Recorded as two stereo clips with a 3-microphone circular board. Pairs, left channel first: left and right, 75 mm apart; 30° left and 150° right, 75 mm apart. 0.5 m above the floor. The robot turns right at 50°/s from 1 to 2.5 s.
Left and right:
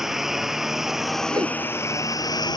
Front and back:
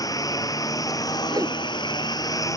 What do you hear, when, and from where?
0.0 s a lawn mower: 5° right; by 2.6 s 70° left
1.3 s a whoosh: 120° right; by 1.6 s 105° right